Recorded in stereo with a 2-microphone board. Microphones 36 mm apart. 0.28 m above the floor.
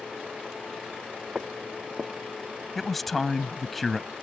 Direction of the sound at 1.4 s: 35° right (ahead or behind).